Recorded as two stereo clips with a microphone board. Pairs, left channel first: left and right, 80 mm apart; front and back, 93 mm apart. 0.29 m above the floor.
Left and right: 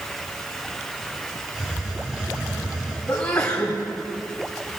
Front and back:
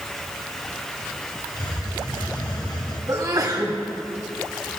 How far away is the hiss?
About 3.5 m.